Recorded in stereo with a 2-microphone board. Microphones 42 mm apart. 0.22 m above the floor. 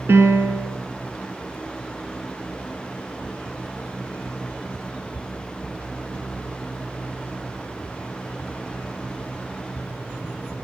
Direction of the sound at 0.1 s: 60° right (ahead or behind).